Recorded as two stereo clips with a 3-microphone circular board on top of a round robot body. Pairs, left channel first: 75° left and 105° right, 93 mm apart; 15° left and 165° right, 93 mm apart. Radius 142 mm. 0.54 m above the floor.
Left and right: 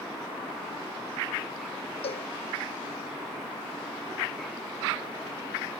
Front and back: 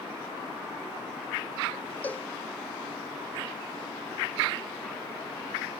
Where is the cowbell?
90° left.